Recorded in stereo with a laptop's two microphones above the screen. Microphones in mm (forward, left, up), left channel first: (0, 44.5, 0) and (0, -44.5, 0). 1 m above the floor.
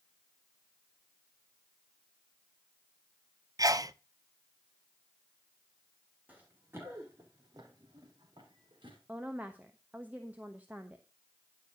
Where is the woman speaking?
20° right (ahead or behind), 1.1 m.